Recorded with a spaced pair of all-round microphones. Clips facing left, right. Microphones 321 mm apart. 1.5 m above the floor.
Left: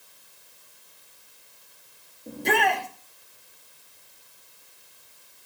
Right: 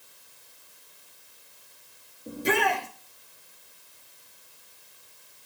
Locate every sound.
2.3 s a shout: 10° right (ahead or behind), 3.5 m